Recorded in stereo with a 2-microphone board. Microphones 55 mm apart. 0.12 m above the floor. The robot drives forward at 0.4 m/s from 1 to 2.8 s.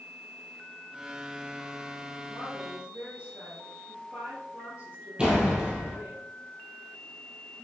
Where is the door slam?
15° right (ahead or behind), 2 m.